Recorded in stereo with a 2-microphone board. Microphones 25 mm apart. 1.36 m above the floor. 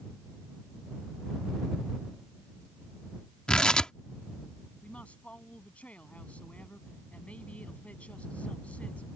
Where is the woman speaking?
65° left (ahead or behind).